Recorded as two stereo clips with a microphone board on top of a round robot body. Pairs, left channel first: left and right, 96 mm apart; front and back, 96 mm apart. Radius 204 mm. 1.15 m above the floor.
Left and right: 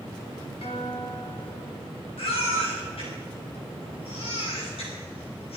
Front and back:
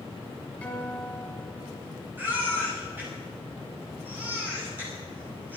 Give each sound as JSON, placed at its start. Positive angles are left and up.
{"t": 0.6, "sound": "a guitar", "azimuth_deg": 80, "distance_m": 5.0}
{"t": 2.2, "sound": "a baby crying", "azimuth_deg": 110, "distance_m": 6.0}